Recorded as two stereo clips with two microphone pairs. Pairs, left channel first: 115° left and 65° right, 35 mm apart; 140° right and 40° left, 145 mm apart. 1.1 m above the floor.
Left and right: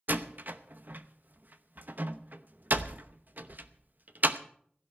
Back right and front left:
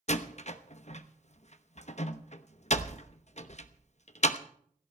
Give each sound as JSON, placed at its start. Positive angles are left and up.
{"t": 0.1, "sound": "a door slam", "azimuth_deg": -100, "distance_m": 0.8}